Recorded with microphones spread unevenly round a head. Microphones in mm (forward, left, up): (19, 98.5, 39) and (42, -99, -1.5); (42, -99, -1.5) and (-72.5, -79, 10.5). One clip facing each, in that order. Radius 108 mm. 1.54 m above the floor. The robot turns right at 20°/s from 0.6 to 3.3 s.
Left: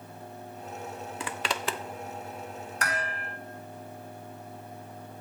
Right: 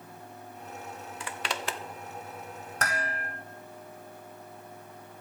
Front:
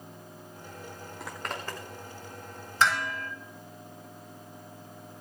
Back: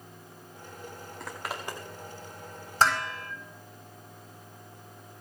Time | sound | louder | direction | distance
1.2 | a zipper | left 2 dB, even | 80° left | 0.8 m
2.8 | dishes clattering | right 1 dB, back 1 dB | 140° right | 6 m